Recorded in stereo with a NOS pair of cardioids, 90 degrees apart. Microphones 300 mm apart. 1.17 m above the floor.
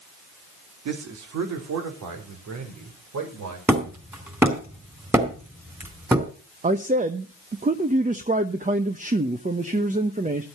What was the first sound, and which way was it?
A man speaking, 60° right.